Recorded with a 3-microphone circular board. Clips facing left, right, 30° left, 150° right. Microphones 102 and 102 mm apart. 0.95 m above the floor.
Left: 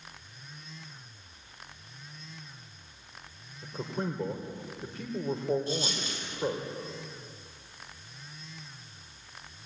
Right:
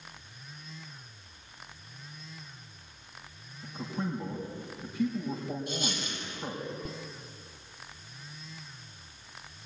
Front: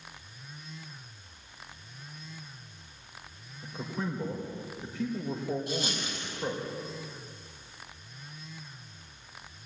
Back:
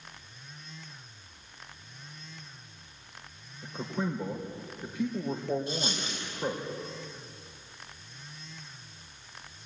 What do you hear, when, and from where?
3.6 s a man speaking: 130° left, 3.5 m
5.7 s a dropped coin: 145° left, 9.5 m